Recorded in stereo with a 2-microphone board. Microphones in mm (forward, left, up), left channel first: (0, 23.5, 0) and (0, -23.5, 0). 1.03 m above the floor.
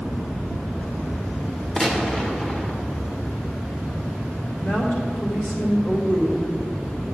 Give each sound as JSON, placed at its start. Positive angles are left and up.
{"t": 1.8, "sound": "a gunshot", "side_deg": 20, "distance_m": 1.2}
{"t": 4.6, "sound": "a woman speaking", "side_deg": 45, "distance_m": 2.5}